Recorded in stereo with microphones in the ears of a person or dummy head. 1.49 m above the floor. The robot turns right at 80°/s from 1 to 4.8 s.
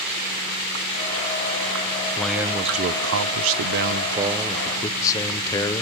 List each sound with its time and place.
2.2 s a man speaking: 170° left, 0.6 m; by 5.8 s 20° left, 0.6 m